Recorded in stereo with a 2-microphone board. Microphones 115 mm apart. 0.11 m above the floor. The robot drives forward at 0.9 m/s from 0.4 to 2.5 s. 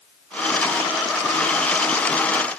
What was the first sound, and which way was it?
Only background noise.